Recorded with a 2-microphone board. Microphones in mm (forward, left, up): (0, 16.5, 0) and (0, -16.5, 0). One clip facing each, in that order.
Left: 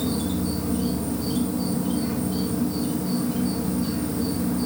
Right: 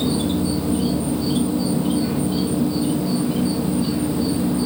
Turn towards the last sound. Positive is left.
turn(degrees=-45)  # may be behind; listen again after turning